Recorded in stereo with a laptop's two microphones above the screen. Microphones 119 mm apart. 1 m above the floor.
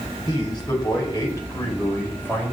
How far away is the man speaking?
About 5.5 m.